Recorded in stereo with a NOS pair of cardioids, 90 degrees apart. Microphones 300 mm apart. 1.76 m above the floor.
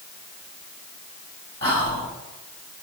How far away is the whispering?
About 1.5 m.